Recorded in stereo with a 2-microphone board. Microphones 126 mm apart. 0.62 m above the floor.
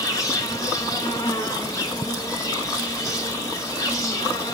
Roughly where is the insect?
Left.